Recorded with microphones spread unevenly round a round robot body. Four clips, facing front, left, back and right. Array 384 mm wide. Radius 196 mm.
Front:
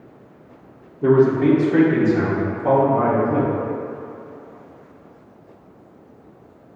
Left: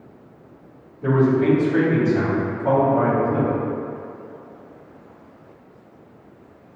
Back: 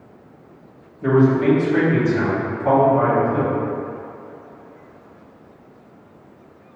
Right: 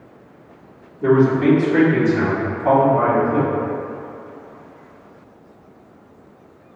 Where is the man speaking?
40° right, 1.5 m; by 3.5 s 20° left, 2.5 m.